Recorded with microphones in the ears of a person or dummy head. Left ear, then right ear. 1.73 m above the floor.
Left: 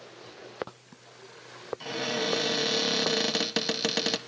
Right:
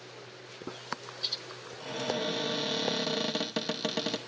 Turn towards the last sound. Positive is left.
turn(degrees=30)  # may be behind; listen again after turning